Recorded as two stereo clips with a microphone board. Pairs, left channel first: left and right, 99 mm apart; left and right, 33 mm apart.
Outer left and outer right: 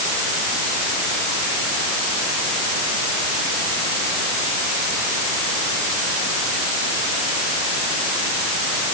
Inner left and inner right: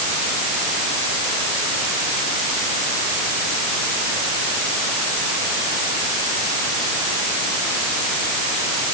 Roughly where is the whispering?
No whispering in this recording.